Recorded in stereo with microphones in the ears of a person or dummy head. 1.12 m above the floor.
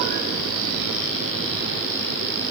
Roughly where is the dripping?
No dripping in this recording.